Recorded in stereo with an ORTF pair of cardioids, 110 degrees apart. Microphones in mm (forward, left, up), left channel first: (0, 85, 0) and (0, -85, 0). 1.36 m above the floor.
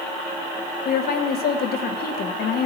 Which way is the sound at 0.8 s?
60° left.